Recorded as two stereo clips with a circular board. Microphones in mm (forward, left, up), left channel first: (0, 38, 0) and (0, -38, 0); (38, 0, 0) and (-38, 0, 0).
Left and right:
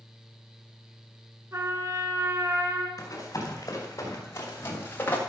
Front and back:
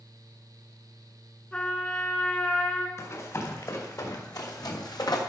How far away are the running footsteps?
About 4.5 m.